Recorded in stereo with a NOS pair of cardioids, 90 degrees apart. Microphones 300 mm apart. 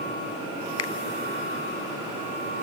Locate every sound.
0.8 s a finger snap: 55° left, 0.6 m